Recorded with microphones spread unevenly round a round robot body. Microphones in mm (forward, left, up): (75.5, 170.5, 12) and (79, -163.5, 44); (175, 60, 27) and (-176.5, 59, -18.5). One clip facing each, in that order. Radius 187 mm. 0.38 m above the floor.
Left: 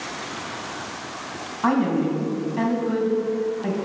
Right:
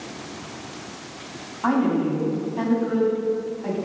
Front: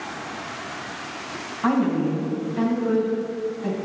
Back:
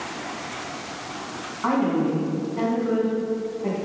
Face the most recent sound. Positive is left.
turn(degrees=50)